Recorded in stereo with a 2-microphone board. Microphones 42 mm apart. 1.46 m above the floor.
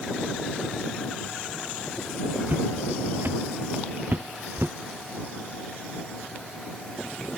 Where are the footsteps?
50° right (ahead or behind); by 4.8 s 60° right (ahead or behind).